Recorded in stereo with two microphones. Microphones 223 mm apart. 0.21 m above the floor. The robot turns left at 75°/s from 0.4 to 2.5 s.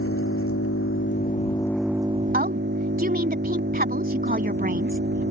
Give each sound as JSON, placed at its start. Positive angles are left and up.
{"t": 0.0, "sound": "an engine running", "azimuth_deg": 105}
{"t": 2.3, "sound": "a woman speaking", "side_deg": -40}